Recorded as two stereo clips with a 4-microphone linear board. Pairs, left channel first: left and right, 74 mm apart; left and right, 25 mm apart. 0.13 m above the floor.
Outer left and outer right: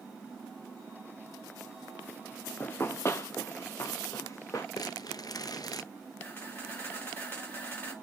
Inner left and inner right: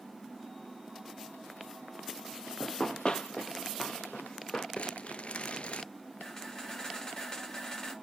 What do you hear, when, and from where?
2.6 s running footsteps: 25° left (ahead or behind), 0.5 m; by 4.7 s 45° left (ahead or behind), 2.0 m
4.8 s crumpling: 55° left (ahead or behind), 0.7 m
6.2 s a camera shutter: 25° left (ahead or behind), 5 m